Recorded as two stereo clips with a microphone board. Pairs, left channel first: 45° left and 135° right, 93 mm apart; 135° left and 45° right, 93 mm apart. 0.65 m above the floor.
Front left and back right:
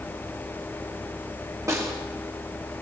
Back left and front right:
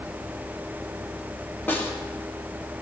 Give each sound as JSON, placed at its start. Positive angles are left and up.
{"t": 1.7, "sound": "a snare drum", "azimuth_deg": -170, "distance_m": 1.3}